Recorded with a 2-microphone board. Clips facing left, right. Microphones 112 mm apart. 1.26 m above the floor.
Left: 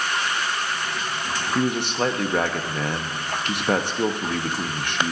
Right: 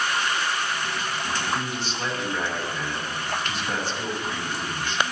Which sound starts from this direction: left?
A man speaking, at 1.6 s.